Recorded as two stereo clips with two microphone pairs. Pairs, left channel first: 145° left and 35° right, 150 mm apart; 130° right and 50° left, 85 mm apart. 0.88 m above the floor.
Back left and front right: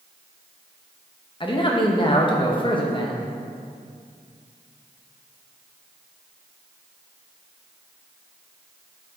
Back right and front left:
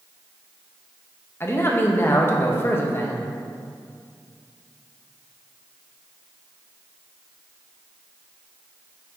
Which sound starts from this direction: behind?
A man speaking, at 1.4 s.